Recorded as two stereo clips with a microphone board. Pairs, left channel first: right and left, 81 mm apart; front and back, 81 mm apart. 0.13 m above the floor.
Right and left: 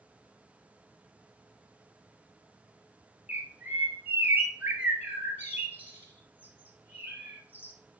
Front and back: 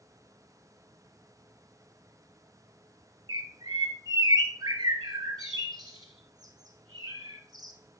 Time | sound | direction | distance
3.3 | a bird | 155° left | 1.7 m